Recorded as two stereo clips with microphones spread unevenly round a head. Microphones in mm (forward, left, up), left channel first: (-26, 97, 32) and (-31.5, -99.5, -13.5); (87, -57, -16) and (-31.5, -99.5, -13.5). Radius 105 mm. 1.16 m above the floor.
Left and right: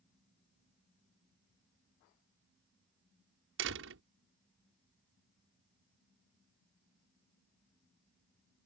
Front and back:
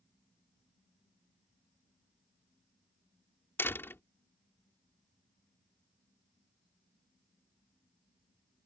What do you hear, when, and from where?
3.6 s a door slam: 55° right